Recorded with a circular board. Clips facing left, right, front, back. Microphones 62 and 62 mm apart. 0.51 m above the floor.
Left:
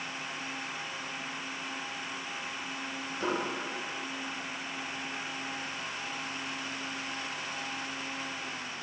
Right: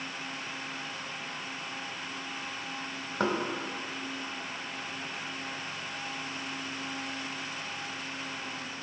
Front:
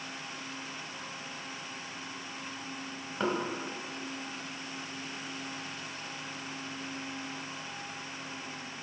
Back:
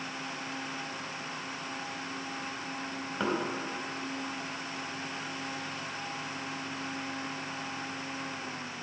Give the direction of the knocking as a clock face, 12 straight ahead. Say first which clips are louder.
Right 3 dB, even; 3 o'clock.